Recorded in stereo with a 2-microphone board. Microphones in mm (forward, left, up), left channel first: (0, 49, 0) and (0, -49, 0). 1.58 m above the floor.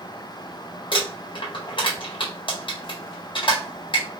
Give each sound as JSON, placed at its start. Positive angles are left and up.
{"t": 0.9, "sound": "crumpling", "side_deg": 55, "distance_m": 1.4}